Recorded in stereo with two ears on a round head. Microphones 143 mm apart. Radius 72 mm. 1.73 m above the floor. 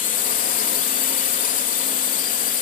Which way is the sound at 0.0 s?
55° left (ahead or behind).